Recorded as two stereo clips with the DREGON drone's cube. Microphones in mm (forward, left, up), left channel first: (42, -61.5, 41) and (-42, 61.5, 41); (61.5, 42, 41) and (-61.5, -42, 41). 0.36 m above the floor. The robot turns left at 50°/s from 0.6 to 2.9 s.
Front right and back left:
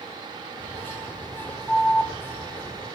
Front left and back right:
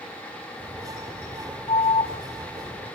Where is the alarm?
30° left, 0.7 m; by 2.1 s 10° left, 0.7 m.